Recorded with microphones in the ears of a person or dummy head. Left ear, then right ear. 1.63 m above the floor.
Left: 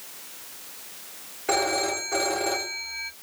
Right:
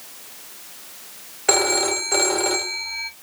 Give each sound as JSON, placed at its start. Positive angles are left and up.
{"t": 1.5, "sound": "a phone ringing", "side_deg": -40, "distance_m": 0.7}